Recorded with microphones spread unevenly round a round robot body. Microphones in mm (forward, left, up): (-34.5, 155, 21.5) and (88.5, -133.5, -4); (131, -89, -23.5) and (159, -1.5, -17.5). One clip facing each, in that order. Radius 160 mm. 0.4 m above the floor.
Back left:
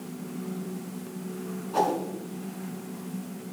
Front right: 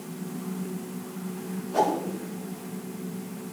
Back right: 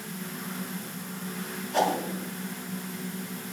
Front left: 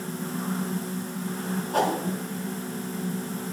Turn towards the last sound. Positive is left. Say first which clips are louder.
# front right 1 dB, even
turn(degrees=30)